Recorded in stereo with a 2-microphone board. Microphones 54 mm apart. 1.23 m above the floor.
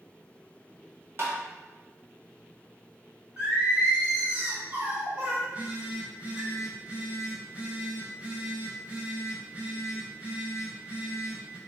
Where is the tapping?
45° right (ahead or behind), 0.7 m.